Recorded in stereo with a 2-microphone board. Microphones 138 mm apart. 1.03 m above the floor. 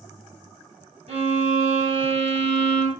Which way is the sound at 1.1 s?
50° right (ahead or behind).